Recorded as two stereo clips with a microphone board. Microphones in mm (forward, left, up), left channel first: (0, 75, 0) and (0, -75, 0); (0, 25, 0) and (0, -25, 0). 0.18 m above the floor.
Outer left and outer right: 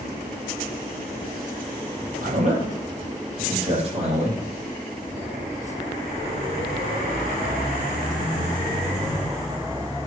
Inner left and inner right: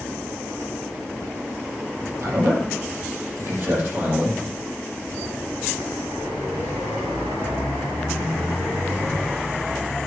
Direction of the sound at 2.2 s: 55° right (ahead or behind).